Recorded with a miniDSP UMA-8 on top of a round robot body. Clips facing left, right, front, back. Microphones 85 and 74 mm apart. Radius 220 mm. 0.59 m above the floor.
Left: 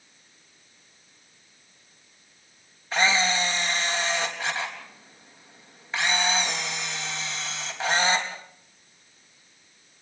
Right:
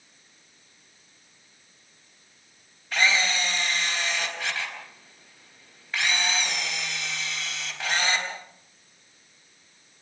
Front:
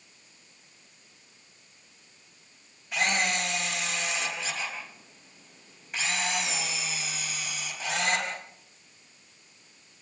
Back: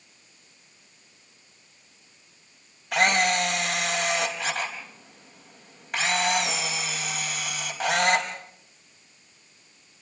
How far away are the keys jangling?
No keys jangling in this recording.